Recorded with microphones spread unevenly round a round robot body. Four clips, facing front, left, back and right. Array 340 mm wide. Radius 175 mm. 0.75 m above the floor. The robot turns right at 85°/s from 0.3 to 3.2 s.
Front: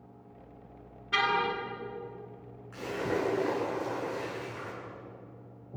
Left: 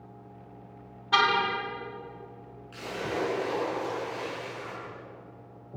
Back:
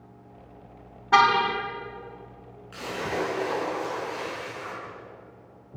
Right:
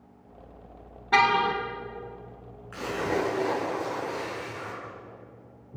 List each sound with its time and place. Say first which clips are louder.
1.1 s a car horn: right 3 dB, back 9 dB; 155° right, 2.5 m; by 1.6 s 120° right, 2.5 m
2.7 s a splash: right 4 dB, back 2 dB; 115° right, 8 m; by 4.8 s 75° right, 8 m